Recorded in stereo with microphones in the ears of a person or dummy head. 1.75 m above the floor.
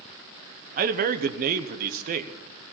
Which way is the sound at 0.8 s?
55° right (ahead or behind).